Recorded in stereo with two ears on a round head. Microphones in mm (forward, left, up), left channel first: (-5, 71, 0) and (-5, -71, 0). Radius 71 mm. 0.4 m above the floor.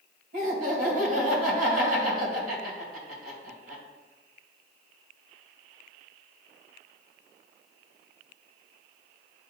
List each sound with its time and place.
0.3 s laughter: 55° right (ahead or behind), 2.5 m